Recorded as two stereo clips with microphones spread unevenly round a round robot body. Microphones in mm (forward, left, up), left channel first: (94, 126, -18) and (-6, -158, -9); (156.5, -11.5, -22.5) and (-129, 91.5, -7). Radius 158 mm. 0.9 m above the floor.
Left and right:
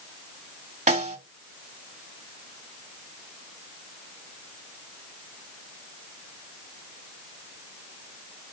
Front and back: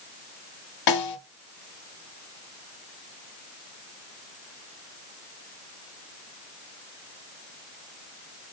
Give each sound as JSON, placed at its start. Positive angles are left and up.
{"t": 0.9, "sound": "a snare drum", "azimuth_deg": -45, "distance_m": 1.9}